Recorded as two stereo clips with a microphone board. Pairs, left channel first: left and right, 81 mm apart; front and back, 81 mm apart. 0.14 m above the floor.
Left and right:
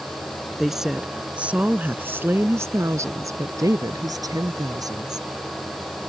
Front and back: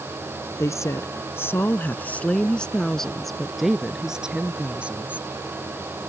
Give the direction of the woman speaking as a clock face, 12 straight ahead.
12 o'clock.